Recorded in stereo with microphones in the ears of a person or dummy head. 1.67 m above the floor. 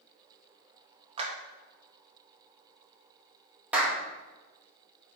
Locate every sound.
1.2 s a clap: 30° right (ahead or behind), 1.3 m
3.7 s a clap: 10° right (ahead or behind), 1.6 m